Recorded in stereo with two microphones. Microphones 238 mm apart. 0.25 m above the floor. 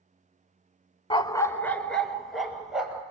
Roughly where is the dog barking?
Left.